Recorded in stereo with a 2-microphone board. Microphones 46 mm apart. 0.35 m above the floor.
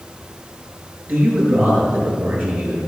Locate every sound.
1.1 s a man speaking: 45° right (ahead or behind), 6 m